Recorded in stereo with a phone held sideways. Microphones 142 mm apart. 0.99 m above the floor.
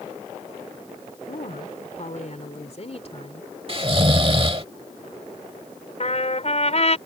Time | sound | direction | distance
1.3 | a woman speaking | 65° left (ahead or behind) | ?
3.7 | snoring | 40° right (ahead or behind) | ?
6.0 | a trumpet | 50° left (ahead or behind) | ?